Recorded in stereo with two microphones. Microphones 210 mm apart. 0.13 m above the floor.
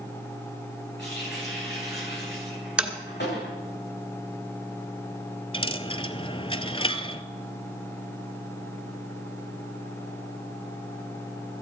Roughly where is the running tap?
Left.